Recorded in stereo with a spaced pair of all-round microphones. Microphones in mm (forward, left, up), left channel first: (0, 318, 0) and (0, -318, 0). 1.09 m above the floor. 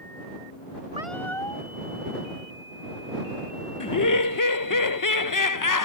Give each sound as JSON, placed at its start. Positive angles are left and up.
{"t": 0.9, "sound": "a cat meowing", "side_deg": 50}
{"t": 3.8, "sound": "laughter", "side_deg": 30}